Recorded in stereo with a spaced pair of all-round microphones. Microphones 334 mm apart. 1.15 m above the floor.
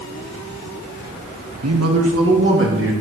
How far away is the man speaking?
About 1.3 m.